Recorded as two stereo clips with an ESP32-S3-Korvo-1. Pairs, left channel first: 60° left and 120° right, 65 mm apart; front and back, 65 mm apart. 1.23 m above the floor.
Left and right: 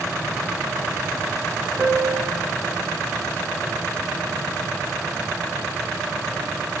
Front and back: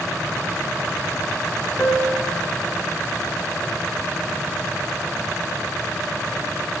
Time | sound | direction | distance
1.8 | a piano | 65° right | 2.5 m